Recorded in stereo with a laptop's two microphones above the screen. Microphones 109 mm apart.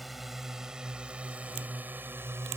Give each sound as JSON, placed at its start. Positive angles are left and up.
{"t": 0.0, "sound": "a drone", "side_deg": 0}